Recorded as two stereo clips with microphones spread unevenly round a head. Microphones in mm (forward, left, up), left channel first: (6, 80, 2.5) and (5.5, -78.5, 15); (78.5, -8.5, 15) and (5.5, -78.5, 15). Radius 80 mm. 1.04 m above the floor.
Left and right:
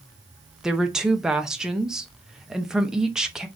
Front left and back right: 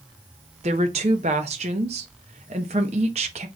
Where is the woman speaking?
Straight behind, 0.6 m.